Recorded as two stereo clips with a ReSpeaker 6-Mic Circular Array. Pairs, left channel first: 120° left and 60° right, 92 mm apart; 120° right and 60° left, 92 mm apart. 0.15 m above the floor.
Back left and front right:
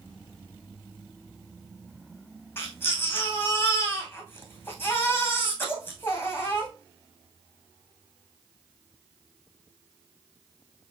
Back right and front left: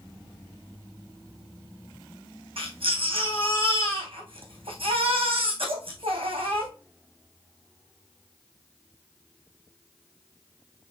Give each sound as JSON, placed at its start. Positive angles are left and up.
{"t": 2.6, "sound": "a baby crying", "azimuth_deg": 50, "distance_m": 3.0}